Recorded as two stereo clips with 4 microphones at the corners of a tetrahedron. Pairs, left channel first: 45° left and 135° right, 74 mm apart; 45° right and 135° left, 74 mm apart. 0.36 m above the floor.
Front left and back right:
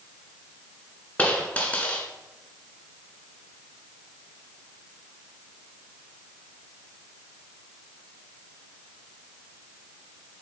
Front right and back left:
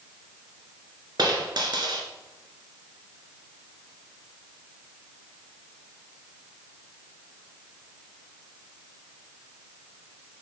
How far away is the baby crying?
No baby crying in this recording.